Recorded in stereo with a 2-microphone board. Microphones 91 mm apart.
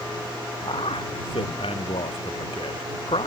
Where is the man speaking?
85° left.